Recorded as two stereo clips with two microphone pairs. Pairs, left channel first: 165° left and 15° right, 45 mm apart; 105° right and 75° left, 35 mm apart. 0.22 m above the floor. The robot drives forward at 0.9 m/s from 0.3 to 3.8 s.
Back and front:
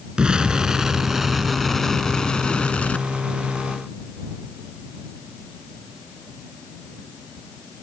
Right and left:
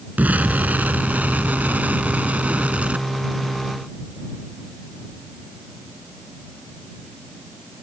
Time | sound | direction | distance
0.2 | an explosion | 50° left | ?